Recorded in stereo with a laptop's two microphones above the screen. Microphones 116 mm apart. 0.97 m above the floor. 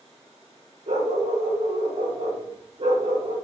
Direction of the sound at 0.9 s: 75° right (ahead or behind).